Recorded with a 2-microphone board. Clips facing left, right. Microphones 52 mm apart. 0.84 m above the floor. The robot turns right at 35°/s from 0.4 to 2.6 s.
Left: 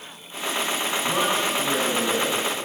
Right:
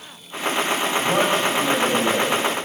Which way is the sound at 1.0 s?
70° right.